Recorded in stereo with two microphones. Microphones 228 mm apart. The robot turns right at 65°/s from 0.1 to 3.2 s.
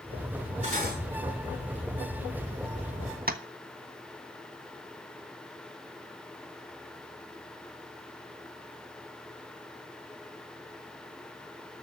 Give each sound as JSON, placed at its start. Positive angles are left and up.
{"t": 0.6, "sound": "cutlery clinking", "side_deg": -25, "distance_m": 7.5}
{"t": 3.3, "sound": "tapping", "side_deg": -40, "distance_m": 1.1}